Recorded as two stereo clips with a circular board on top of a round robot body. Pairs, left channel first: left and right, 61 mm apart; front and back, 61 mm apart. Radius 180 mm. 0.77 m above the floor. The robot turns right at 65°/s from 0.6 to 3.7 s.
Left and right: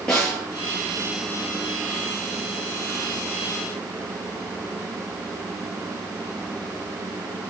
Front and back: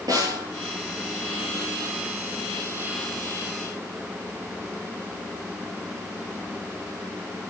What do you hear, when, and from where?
0.1 s a snare drum: 165° left, 9 m